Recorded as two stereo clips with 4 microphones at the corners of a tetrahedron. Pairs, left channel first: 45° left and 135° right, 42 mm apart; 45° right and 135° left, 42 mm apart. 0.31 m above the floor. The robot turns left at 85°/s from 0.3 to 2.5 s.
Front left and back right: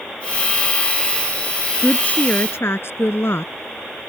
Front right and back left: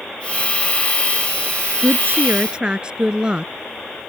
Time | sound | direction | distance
1.8 | a woman speaking | 125° left | ?